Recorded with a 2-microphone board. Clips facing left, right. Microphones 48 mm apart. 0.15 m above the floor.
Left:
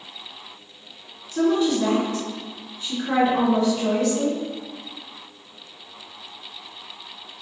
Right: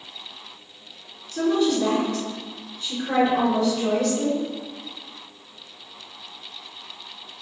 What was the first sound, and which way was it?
A woman speaking, 30° left (ahead or behind).